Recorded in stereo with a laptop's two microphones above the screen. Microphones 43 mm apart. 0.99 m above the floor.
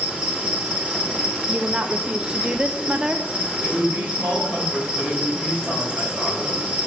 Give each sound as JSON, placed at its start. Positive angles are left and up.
{"t": 0.0, "sound": "an insect", "side_deg": -25, "distance_m": 3.0}
{"t": 1.5, "sound": "a woman speaking", "side_deg": -20, "distance_m": 0.7}
{"t": 3.6, "sound": "a woman speaking", "side_deg": -35, "distance_m": 5.5}